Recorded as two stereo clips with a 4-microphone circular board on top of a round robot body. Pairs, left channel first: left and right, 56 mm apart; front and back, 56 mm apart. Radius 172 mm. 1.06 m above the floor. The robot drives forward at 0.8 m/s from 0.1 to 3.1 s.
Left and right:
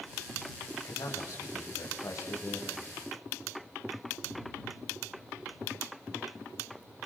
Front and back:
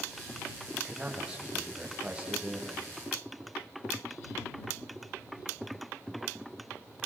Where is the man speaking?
105° left, 8 m; by 2.9 s 115° left, 8.5 m.